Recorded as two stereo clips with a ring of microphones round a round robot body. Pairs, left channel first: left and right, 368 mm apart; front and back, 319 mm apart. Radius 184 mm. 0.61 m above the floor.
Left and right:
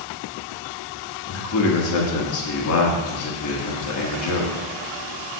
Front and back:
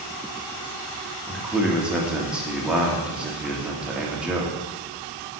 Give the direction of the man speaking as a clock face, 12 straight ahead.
9 o'clock.